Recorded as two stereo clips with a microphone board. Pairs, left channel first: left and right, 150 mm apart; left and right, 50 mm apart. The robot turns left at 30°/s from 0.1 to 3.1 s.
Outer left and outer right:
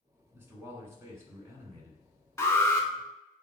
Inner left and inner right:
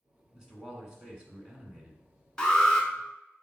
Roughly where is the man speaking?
Centre.